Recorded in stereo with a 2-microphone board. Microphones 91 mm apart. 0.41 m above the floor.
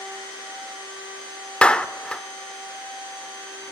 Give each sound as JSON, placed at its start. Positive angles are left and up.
{"t": 1.6, "sound": "a clap", "side_deg": 10, "distance_m": 0.6}